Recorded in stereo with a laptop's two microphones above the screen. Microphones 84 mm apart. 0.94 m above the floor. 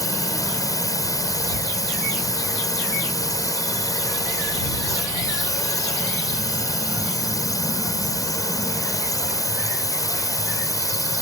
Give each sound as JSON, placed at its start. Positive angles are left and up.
{"t": 0.0, "sound": "a drone", "side_deg": 45}